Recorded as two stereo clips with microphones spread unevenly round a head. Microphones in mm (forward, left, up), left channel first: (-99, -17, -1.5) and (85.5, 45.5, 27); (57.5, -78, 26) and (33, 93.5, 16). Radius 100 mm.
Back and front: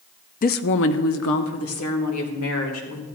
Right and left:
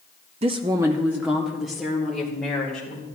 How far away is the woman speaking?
About 0.5 m.